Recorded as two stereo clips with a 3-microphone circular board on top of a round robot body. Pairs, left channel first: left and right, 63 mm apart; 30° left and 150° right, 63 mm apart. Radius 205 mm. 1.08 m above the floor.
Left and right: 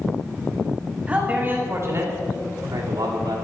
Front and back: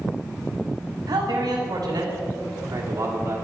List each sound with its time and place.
1.1 s a man speaking: 160° right, 3 m; by 3.4 s 100° right, 3.5 m